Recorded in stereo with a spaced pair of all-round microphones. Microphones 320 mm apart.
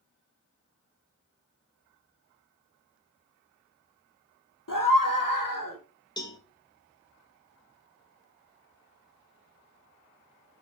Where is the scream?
80° left, 3.5 m.